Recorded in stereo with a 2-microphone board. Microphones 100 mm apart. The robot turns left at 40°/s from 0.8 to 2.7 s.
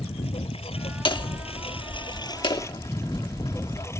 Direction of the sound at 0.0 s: 105° left.